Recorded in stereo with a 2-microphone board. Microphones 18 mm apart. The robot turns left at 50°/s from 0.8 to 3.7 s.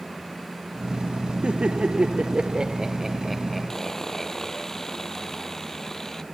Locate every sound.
1.4 s laughter: 75° right (ahead or behind); by 4.7 s 10° left (ahead or behind)
3.7 s sawing: 30° left (ahead or behind)